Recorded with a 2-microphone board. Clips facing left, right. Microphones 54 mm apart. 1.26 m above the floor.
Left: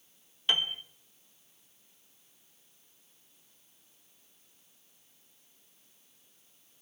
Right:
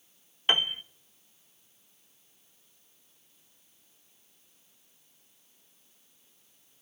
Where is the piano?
35° right (ahead or behind), 0.6 m.